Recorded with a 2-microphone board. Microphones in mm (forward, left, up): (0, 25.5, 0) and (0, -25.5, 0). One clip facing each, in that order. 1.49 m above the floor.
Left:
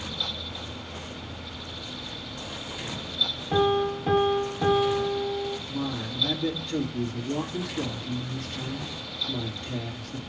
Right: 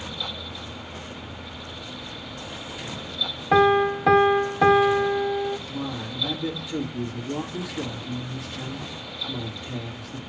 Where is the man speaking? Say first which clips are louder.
Even; 5° right (ahead or behind), 2.5 m.